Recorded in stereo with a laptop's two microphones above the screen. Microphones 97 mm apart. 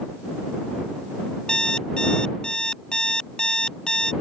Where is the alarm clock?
10° left (ahead or behind).